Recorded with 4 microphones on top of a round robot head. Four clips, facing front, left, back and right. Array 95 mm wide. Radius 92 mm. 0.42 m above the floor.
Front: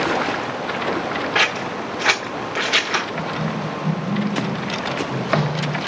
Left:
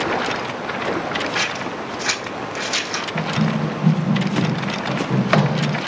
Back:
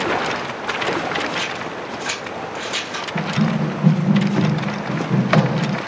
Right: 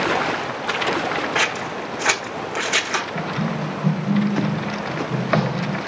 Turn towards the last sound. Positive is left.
turn(degrees=135)